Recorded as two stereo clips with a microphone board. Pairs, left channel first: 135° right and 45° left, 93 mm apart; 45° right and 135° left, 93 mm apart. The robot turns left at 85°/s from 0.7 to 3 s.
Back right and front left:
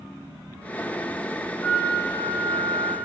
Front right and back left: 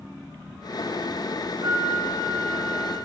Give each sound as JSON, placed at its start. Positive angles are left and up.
{"t": 1.6, "sound": "a flute", "azimuth_deg": 155, "distance_m": 1.6}